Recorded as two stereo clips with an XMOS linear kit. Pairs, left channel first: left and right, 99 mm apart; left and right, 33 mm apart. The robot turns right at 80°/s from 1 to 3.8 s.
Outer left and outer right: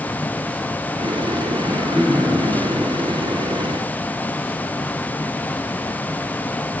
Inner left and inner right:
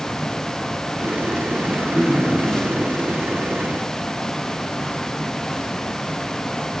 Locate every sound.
1.6 s throat clearing: 40° right, 7 m; by 2.5 s 35° left, 7 m